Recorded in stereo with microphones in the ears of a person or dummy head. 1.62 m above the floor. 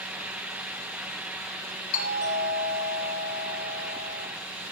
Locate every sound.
1.9 s a doorbell: 35° left (ahead or behind), 5.5 m